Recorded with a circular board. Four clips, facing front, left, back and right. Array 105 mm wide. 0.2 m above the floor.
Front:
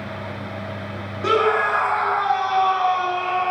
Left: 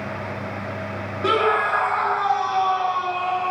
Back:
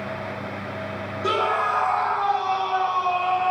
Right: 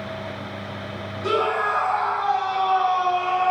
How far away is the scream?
About 3.5 m.